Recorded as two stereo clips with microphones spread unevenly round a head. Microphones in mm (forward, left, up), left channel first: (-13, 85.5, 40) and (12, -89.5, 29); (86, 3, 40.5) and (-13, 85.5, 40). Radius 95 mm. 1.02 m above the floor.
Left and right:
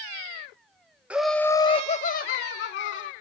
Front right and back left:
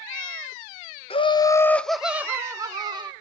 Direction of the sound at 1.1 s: Straight ahead.